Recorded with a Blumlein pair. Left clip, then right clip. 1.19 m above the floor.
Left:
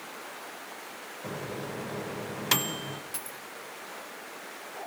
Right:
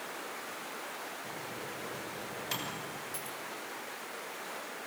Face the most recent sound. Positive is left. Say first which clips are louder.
# even
turn(degrees=20)